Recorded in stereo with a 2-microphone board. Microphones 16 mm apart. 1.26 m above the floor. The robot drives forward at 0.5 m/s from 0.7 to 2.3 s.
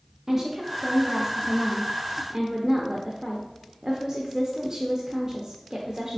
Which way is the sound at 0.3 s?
25° right (ahead or behind).